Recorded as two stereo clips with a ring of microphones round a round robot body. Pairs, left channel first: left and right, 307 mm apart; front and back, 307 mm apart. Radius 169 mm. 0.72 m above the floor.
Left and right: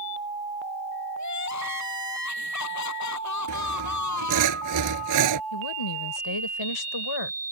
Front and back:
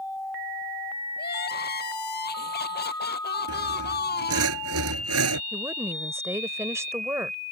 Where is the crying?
60° left.